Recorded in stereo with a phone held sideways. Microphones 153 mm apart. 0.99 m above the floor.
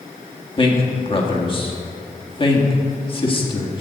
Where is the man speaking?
35° left (ahead or behind), 1.9 m.